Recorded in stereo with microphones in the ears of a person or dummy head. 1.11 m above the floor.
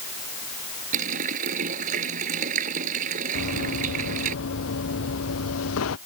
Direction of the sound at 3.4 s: 70° left (ahead or behind).